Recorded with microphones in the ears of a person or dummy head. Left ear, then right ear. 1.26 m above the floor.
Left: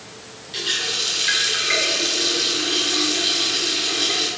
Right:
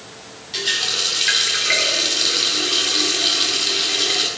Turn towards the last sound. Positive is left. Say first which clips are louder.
# right 2 dB
turn(degrees=-20)  # may be behind; listen again after turning